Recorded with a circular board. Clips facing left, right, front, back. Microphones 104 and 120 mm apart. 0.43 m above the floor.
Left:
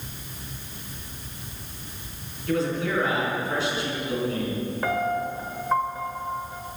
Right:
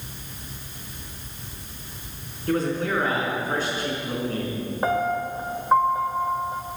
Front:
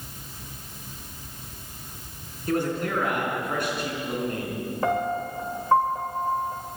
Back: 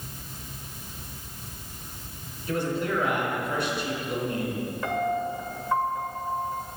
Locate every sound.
2.5 s a man speaking: 40° right, 5 m
4.8 s a piano: 35° right, 1.1 m